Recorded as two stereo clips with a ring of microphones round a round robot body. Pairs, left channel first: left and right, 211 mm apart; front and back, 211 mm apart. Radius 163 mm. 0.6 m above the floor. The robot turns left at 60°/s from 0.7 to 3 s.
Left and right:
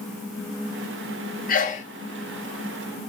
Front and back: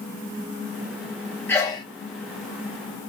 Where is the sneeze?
75° left, 0.9 m; by 1.9 s 55° left, 0.9 m.